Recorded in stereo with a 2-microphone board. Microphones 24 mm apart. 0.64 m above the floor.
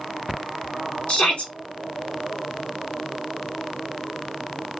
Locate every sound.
1.1 s a shout: 55° left (ahead or behind), 1.4 m